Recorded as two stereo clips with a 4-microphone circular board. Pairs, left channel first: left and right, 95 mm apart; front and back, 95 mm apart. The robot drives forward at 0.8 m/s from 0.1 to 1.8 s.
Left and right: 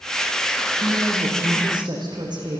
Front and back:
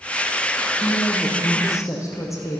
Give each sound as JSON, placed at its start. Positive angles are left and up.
{"t": 0.8, "sound": "a woman speaking", "azimuth_deg": -50, "distance_m": 6.5}